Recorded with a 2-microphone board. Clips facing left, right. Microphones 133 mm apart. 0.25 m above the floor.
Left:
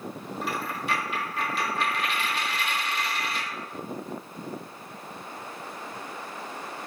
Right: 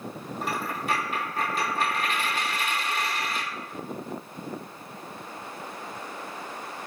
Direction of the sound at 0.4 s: 45° right (ahead or behind).